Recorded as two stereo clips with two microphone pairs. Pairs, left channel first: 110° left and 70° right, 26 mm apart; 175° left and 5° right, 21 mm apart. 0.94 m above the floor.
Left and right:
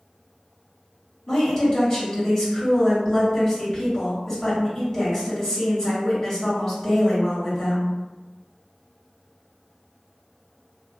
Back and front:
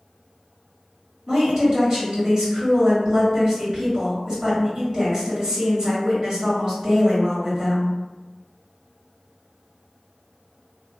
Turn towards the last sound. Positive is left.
turn(degrees=40)